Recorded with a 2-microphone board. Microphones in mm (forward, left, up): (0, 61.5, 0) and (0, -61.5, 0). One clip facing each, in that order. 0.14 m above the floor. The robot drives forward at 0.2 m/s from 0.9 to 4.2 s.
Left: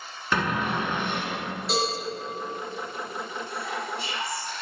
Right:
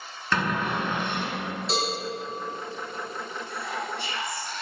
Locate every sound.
0.3 s a cupboard door: 10° left (ahead or behind), 0.6 m; by 1.5 s 15° left (ahead or behind), 0.5 m
1.7 s a cowbell: 5° left (ahead or behind), 1.3 m
3.5 s whispering: 5° left (ahead or behind), 1.4 m